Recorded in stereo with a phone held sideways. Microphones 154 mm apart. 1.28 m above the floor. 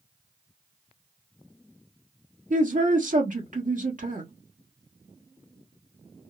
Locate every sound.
2.5 s a man speaking: 65° right (ahead or behind), 1.2 m